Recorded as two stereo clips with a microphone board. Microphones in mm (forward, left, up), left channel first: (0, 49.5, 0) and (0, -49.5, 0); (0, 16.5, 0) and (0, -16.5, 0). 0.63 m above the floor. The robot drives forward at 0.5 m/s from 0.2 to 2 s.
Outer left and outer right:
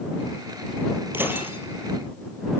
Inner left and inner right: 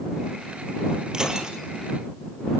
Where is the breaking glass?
20° right (ahead or behind), 4 m.